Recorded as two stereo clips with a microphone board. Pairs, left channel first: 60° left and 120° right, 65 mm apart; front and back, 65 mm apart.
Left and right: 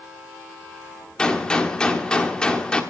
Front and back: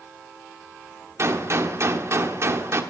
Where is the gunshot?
140° left, 1.1 m.